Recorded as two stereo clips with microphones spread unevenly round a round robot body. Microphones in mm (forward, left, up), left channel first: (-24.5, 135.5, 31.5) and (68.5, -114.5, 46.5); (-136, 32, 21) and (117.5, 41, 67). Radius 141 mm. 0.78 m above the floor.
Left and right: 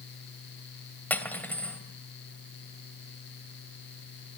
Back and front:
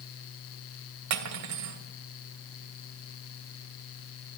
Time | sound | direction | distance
1.1 | cutlery clinking | 25° left | 2.5 m